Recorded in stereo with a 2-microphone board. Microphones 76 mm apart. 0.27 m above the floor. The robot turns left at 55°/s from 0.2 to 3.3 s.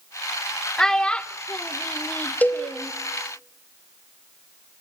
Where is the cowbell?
25° left (ahead or behind), 1.4 m; by 2.7 s 20° left (ahead or behind), 1.4 m.